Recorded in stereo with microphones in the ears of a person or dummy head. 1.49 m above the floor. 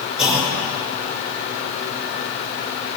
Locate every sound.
0.2 s a clunk: 5° right (ahead or behind), 6 m